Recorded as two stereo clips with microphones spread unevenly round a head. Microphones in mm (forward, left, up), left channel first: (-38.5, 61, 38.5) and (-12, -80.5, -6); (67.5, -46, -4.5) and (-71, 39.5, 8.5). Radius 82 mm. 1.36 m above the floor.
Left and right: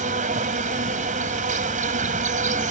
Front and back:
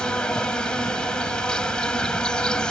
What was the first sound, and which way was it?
An insect, 120° right.